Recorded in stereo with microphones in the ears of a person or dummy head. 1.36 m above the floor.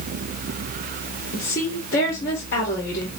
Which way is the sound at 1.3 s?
55° left (ahead or behind).